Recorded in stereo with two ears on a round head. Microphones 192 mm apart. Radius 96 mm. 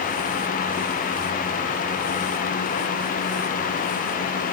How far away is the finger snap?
No finger snap in this recording.